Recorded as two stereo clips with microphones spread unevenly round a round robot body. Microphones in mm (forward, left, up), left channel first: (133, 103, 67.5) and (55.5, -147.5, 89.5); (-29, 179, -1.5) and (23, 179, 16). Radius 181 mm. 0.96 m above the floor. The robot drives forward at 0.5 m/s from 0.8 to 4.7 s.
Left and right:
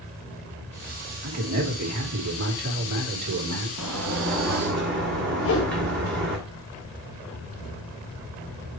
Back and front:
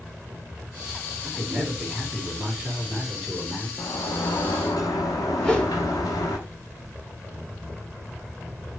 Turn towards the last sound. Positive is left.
turn(degrees=110)